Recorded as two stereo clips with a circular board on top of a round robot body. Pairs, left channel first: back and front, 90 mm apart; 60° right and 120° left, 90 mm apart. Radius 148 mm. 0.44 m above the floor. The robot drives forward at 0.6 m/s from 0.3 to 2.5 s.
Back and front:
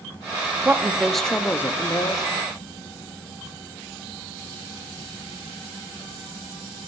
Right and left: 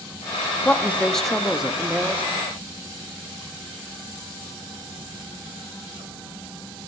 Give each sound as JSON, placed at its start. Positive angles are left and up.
{"t": 0.7, "sound": "a woman speaking", "azimuth_deg": -20, "distance_m": 0.9}